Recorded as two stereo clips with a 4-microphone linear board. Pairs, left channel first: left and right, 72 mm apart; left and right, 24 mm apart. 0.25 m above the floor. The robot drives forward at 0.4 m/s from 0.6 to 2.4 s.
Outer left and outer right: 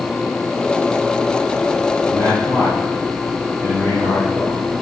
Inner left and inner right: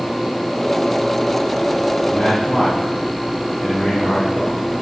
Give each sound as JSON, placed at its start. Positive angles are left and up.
{"t": 2.1, "sound": "a man speaking", "side_deg": 65, "distance_m": 8.0}